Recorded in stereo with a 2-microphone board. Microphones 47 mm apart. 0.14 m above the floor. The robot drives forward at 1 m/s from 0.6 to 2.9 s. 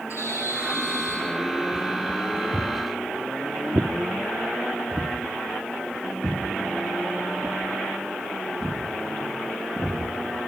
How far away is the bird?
About 9 m.